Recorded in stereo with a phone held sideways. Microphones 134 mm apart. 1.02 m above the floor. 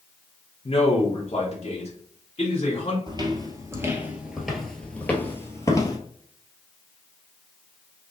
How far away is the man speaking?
About 1.0 m.